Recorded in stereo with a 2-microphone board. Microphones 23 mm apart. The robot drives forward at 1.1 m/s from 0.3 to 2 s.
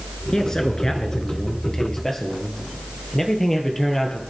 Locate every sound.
0.3 s a man speaking: 25° left (ahead or behind), 1.4 m; by 4.2 s 15° left (ahead or behind), 2.5 m